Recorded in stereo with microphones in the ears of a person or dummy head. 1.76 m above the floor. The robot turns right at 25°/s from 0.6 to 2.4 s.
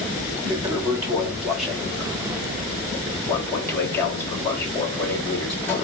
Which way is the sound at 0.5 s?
35° right.